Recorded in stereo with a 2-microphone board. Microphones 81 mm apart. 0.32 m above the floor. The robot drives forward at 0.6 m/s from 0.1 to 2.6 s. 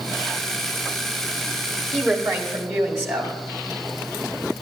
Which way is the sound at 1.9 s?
25° right (ahead or behind).